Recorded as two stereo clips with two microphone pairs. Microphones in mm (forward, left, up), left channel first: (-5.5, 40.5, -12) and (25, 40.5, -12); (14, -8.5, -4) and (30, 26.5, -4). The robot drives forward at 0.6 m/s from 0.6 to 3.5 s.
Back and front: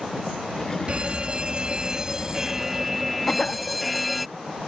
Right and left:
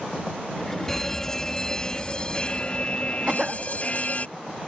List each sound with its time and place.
0.9 s a fire alarm: 40° right; by 4.3 s 90° right
3.3 s a cough: 125° left; by 3.6 s 130° left